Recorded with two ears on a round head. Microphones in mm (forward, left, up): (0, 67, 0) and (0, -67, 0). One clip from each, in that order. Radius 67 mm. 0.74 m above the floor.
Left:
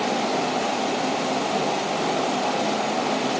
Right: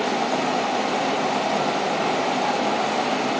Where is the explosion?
I don't hear an explosion.